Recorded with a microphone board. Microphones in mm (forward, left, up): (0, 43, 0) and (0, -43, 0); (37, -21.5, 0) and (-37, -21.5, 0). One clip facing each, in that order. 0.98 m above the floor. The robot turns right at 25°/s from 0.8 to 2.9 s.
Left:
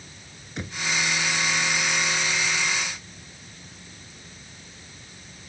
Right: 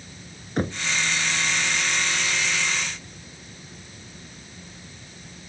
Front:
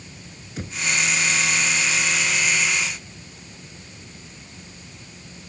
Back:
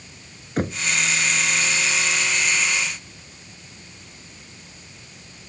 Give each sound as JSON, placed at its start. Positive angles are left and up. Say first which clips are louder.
{"t": 0.6, "sound": "knocking", "louder": "right 9 dB, back 9 dB", "azimuth_deg": -140}